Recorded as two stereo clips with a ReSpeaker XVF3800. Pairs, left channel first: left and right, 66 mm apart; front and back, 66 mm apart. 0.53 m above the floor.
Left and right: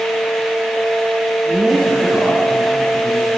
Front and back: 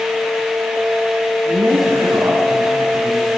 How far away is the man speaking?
About 7.5 m.